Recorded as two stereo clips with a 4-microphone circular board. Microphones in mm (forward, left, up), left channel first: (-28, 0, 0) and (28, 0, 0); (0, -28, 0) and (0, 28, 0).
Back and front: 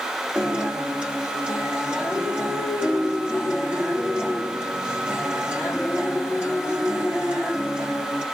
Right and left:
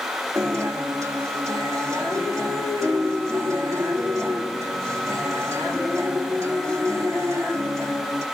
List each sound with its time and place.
0.3 s a guitar: 70° left, 5 m